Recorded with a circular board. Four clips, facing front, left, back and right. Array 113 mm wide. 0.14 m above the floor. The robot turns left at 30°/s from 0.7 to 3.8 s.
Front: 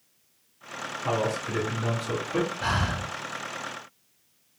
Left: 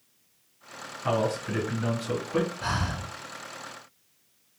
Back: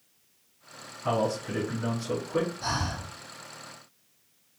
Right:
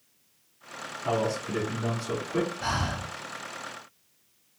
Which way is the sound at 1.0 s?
75° left.